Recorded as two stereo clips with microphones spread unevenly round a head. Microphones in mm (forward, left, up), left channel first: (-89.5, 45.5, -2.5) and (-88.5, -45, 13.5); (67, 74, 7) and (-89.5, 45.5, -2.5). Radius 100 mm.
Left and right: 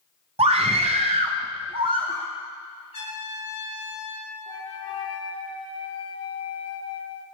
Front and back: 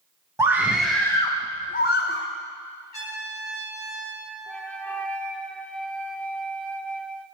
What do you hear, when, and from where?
0.4 s a scream: 95° right, 1.2 m; by 2.3 s 15° right, 1.0 m
2.9 s a trumpet: 80° left, 5 m
4.5 s a flute: 95° left, 0.9 m